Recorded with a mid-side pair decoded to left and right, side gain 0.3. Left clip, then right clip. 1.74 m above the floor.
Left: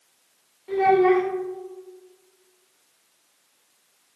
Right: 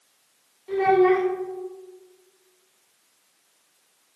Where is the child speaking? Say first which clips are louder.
Left 1 dB; 20° left, 1.6 m.